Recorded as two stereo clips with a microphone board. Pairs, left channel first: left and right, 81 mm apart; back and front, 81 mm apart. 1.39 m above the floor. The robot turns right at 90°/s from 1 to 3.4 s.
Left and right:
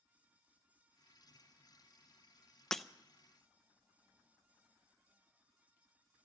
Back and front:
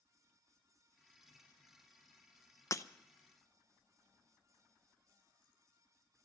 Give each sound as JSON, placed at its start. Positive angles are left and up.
{"t": 2.7, "sound": "breaking glass", "azimuth_deg": 170, "distance_m": 0.5}